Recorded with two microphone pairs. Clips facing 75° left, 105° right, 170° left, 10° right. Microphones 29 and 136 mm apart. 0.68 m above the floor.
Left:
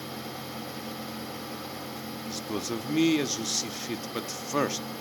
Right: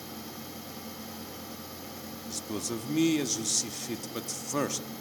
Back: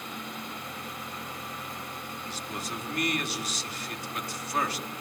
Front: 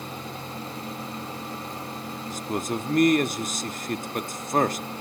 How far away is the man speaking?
About 1.0 m.